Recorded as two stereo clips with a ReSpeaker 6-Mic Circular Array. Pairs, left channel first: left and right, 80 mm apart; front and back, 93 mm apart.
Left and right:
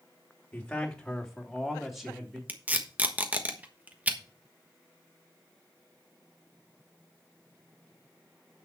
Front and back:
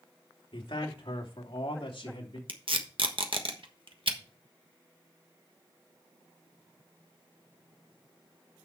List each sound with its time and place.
0.5 s a man speaking: 15° left, 2.5 m; by 2.4 s 5° right, 4 m
2.5 s tape being pulled: 160° right, 1.3 m